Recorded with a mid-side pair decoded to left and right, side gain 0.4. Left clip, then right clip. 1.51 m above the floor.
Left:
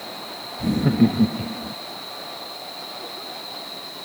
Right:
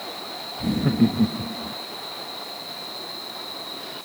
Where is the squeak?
No squeak in this recording.